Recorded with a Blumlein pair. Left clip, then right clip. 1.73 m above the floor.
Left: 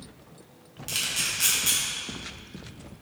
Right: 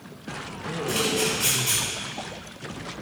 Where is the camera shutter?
60° left, 1.0 m.